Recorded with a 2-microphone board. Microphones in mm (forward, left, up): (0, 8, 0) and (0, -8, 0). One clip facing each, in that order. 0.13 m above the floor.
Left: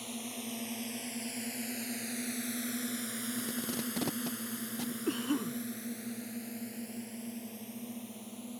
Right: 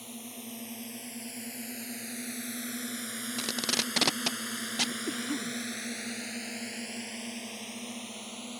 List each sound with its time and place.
0.0 s a drone: 15° left (ahead or behind); by 8.6 s 45° right (ahead or behind)
3.4 s tape being pulled: 60° right (ahead or behind)
5.1 s a cough: 15° left (ahead or behind)